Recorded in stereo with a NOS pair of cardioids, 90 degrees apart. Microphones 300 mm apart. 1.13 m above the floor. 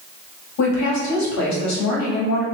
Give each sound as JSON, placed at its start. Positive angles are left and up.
{"t": 0.6, "sound": "a woman speaking", "azimuth_deg": 70, "distance_m": 1.6}